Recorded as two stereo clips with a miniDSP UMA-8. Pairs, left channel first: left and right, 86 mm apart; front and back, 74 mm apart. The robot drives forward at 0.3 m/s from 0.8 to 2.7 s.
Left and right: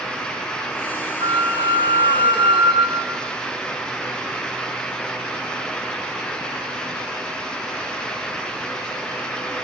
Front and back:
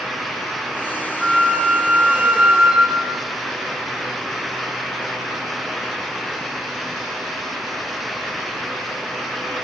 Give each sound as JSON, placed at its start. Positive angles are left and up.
{"t": 1.2, "sound": "a flute", "azimuth_deg": -100, "distance_m": 5.0}